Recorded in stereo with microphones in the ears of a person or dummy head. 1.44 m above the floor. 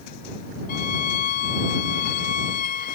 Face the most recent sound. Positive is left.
turn(degrees=55)  # may be behind; listen again after turning